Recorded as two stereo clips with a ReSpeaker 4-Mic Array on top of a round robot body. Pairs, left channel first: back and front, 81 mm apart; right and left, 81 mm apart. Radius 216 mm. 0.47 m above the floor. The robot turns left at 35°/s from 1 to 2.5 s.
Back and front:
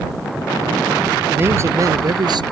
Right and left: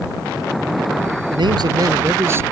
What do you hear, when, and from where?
1.3 s a man speaking: 65° left; by 2.4 s 25° left